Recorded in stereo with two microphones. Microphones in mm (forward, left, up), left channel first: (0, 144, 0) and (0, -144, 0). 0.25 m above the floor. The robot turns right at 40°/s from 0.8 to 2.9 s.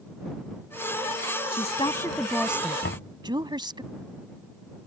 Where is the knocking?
45° left (ahead or behind).